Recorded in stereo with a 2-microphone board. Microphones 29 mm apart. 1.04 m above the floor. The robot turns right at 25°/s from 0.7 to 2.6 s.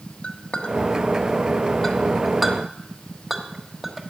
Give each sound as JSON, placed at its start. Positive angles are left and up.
{"t": 0.2, "sound": "a clink", "side_deg": 45, "distance_m": 1.2}